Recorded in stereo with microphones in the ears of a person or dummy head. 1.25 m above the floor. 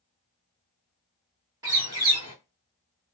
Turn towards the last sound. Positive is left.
turn(degrees=-20)  # may be behind; listen again after turning